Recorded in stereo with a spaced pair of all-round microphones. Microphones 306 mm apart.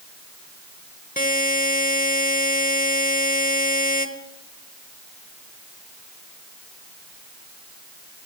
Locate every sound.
1.2 s a buzzer: 30° left (ahead or behind), 0.9 m